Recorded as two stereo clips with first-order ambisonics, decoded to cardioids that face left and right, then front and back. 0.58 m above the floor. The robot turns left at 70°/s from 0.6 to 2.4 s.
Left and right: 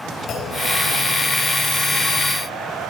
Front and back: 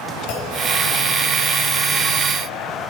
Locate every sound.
0.3 s a clunk: 35° left, 3 m; by 0.6 s 30° left, 3 m